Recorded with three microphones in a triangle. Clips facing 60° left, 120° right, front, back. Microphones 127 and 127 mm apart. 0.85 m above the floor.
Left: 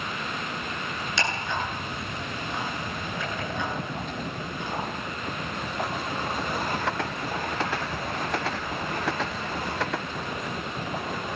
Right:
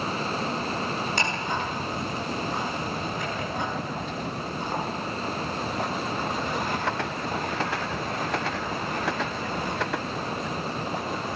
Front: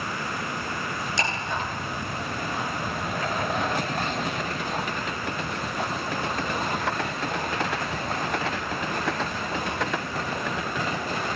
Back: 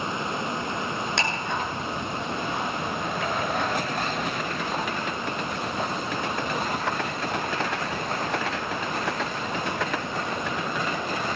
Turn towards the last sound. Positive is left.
turn(degrees=-160)